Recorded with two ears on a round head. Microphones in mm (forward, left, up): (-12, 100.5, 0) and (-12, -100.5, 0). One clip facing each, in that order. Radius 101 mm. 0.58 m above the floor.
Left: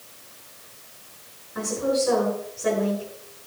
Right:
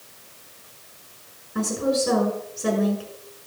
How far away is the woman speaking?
About 6 m.